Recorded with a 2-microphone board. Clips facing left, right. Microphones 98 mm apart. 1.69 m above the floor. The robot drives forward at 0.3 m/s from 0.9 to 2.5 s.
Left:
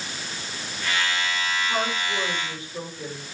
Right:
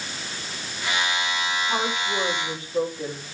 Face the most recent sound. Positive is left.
turn(degrees=-20)  # may be behind; listen again after turning